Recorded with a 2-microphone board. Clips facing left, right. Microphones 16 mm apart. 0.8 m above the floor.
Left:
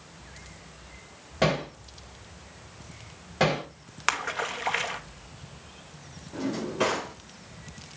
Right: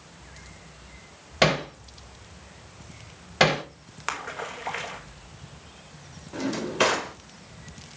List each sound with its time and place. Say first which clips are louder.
1.4 s hammering: right 4 dB; 50° right (ahead or behind), 2.0 m
4.1 s a splash: left 4 dB; 30° left (ahead or behind), 1.1 m
6.3 s a drawer: right 3 dB; 50° right (ahead or behind), 2 m